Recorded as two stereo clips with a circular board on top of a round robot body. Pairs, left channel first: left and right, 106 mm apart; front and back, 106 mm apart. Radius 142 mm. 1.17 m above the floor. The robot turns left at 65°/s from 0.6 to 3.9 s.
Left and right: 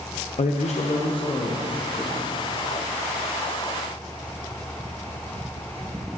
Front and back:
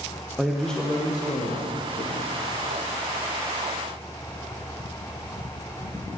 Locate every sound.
0.4 s a man speaking: 90° left, 0.9 m; by 2.3 s 20° right, 0.9 m